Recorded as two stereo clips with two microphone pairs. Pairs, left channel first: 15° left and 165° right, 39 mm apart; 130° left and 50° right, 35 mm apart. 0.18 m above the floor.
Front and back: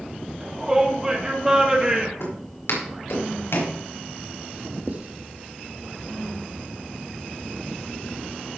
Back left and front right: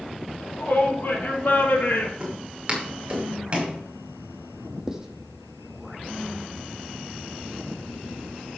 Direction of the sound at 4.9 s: 125° right.